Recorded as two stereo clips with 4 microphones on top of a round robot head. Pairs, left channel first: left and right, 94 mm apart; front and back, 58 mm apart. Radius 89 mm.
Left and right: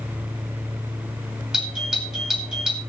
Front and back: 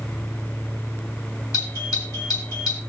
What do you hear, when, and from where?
1.5 s a doorbell: 5° right, 4.5 m